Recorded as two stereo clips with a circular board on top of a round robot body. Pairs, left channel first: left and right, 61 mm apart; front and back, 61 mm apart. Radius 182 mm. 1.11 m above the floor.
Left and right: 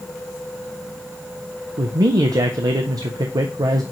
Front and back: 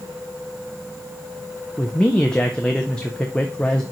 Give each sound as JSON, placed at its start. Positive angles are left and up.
{"t": 1.8, "sound": "a man speaking", "azimuth_deg": -80, "distance_m": 0.5}